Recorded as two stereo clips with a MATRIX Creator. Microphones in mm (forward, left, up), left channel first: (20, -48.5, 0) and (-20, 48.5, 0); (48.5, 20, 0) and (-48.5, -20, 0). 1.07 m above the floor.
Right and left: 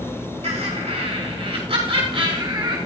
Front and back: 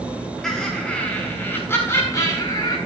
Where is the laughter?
110° left, 4 m; by 2.8 s 75° left, 4.5 m.